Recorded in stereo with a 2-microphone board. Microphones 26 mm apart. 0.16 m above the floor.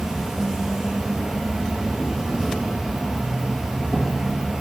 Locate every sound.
0.0 s an insect: 25° right (ahead or behind), 1.2 m